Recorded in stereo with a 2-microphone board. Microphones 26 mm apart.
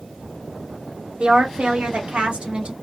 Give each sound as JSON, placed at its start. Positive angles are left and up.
{"t": 1.2, "sound": "a woman speaking", "side_deg": -55, "distance_m": 1.3}